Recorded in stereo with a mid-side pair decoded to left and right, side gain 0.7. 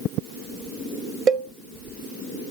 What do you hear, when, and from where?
1.3 s a cowbell: 45° right, 1.0 m